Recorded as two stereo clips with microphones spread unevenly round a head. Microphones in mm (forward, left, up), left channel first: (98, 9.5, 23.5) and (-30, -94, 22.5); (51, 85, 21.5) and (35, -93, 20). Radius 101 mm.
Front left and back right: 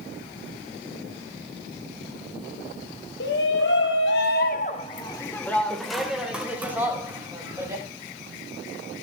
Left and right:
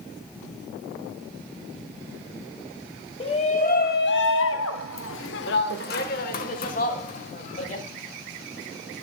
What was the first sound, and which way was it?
A shout, 25° left.